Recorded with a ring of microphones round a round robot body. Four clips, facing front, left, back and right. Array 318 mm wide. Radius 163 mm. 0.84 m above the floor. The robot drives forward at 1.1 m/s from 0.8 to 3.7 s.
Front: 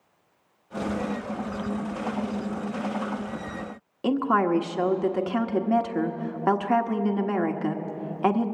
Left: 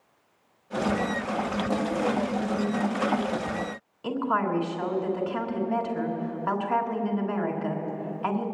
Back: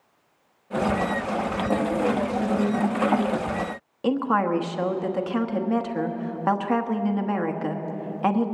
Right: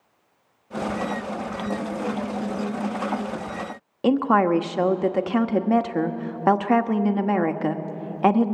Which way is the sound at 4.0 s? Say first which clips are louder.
Right 8 dB, even; 85° right.